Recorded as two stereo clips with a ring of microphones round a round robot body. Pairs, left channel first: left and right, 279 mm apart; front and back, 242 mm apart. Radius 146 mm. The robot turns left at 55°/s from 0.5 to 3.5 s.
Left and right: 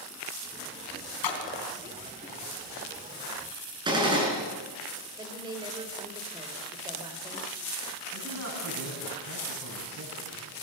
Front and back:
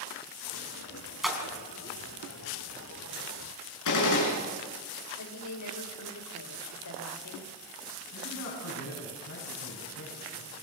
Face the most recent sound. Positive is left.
turn(degrees=-50)